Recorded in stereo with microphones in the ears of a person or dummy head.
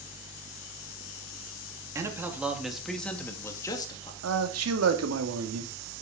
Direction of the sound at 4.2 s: 80° right.